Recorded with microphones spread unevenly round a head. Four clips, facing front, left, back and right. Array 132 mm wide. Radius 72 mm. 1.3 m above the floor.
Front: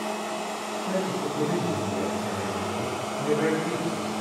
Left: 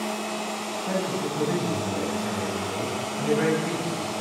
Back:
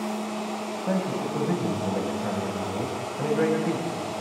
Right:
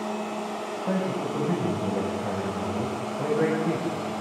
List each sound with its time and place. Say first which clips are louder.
0.9 s a man speaking: even, back 1 dB; 145° right, 9.5 m